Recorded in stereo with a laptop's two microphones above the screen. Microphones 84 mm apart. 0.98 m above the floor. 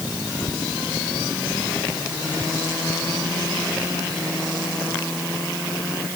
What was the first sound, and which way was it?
Only background noise.